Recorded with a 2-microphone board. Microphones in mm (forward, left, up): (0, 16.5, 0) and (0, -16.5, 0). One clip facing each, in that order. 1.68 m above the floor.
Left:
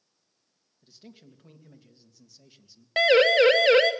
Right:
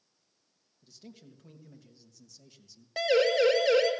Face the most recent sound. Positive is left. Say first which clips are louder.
# left 6 dB
turn(degrees=60)  # may be behind; listen again after turning